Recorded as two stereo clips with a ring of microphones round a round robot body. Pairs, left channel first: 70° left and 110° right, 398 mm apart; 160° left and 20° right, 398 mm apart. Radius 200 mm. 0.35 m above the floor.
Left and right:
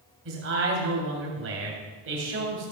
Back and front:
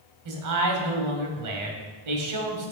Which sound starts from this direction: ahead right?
A man speaking, at 0.2 s.